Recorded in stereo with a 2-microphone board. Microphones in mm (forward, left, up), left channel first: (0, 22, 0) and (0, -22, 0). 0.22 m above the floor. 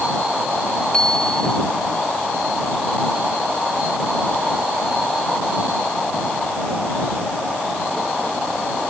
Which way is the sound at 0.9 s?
20° left (ahead or behind).